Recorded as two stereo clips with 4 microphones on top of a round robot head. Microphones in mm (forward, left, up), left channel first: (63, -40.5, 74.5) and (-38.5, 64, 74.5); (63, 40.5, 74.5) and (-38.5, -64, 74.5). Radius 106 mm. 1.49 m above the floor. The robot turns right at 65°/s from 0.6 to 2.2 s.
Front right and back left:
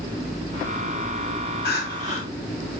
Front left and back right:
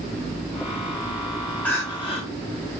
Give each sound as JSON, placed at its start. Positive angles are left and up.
{"t": 1.6, "sound": "crying", "azimuth_deg": -35, "distance_m": 0.9}